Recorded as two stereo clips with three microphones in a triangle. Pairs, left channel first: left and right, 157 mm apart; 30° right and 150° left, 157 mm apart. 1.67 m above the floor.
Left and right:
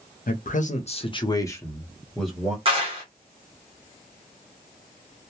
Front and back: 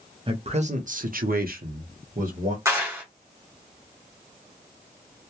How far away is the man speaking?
About 0.7 m.